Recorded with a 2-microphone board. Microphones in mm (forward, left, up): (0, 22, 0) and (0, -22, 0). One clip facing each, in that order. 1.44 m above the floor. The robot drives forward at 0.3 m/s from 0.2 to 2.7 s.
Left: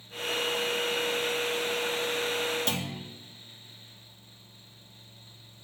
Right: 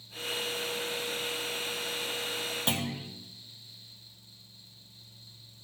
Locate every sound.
2.7 s a clunk: 15° right (ahead or behind), 1.3 m